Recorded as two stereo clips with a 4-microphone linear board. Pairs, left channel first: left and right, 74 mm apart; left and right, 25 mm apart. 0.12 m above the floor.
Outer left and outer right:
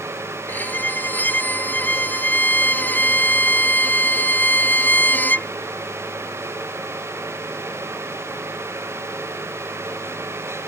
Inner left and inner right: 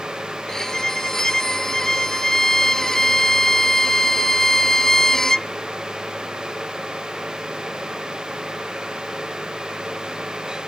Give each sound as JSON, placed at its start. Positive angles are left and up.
{"t": 0.5, "sound": "a violin", "side_deg": 25}